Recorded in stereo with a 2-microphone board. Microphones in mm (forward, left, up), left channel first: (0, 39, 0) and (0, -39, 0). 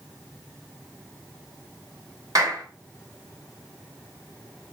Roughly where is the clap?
Right.